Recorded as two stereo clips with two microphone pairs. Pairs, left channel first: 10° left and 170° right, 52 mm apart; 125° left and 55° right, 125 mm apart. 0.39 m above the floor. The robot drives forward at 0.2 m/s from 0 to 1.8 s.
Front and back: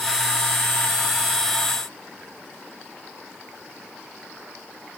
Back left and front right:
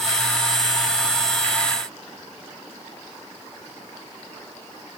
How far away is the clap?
I don't hear a clap.